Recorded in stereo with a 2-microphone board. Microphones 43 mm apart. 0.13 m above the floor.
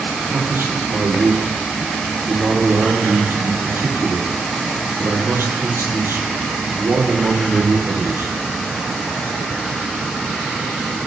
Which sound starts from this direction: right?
A man speaking, at 0.3 s.